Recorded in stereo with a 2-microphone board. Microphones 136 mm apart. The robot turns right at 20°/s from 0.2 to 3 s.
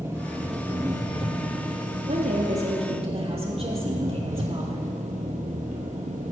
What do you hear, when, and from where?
0.0 s an engine running: 160° right, 2 m; by 6.3 s 105° right, 2 m
2.1 s a woman speaking: 60° right (ahead or behind), 3.5 m; by 4.8 s 45° right (ahead or behind), 3.5 m